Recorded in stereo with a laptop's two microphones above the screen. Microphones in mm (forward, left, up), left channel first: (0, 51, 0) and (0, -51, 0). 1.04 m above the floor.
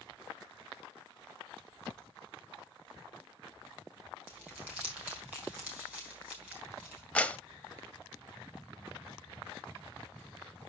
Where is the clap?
10° left (ahead or behind), 0.8 m.